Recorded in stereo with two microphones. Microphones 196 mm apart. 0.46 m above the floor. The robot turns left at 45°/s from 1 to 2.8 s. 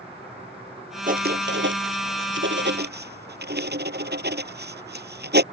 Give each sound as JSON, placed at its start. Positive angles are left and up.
{"t": 1.1, "sound": "writing", "side_deg": -45}